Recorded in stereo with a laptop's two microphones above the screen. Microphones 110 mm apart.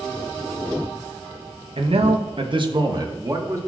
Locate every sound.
1.8 s a man speaking: 60° right (ahead or behind), 1.3 m; by 3.6 s 30° right (ahead or behind), 2.5 m